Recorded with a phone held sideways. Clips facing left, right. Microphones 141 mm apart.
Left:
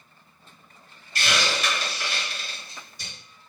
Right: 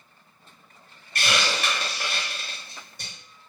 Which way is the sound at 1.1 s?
55° right (ahead or behind).